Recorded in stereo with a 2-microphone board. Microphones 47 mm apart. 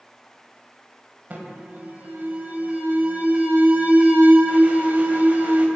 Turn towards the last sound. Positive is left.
turn(degrees=-40)  # may be behind; listen again after turning